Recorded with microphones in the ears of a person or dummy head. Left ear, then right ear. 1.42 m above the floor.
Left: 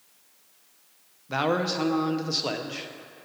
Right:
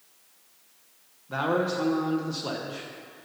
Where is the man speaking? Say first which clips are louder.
Left 1 dB; 30° left (ahead or behind), 0.7 m.